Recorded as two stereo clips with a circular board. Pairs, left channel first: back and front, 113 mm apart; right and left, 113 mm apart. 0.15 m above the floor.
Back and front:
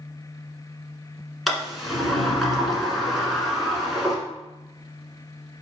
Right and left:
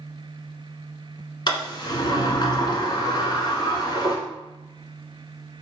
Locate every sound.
1.5 s a sliding door: 90° right, 1.3 m